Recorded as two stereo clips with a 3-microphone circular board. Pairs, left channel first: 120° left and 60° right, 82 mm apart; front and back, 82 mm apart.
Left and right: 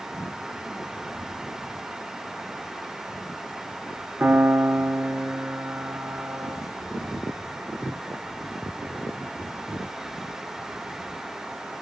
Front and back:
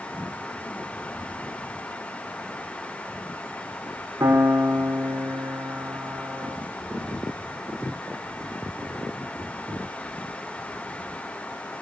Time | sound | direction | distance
4.2 | a piano | 125° right | 1.2 m